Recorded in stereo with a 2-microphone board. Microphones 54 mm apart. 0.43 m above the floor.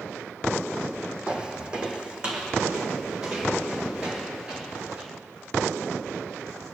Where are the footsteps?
15° right (ahead or behind), 0.8 m.